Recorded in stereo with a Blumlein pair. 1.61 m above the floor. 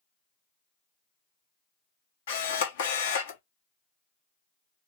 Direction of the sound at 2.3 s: 60° left.